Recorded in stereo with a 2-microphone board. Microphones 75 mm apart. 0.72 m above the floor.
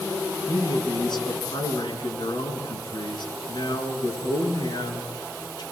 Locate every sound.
0.5 s a man speaking: 80° left, 7 m